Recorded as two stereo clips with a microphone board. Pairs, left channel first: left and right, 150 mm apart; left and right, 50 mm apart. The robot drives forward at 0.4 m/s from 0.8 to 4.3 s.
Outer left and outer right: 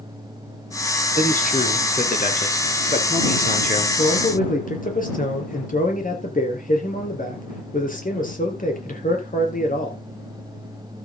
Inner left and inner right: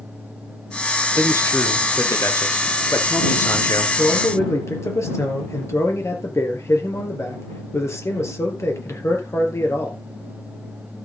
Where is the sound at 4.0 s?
65° left (ahead or behind), 4.5 m.